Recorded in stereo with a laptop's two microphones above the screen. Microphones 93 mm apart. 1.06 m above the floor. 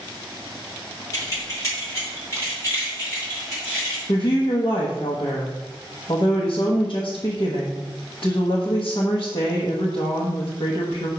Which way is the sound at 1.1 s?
35° left (ahead or behind).